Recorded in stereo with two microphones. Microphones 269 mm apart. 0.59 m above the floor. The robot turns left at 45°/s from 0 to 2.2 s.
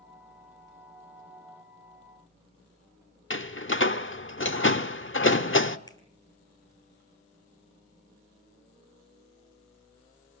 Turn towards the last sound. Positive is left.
turn(degrees=15)  # may be behind; listen again after turning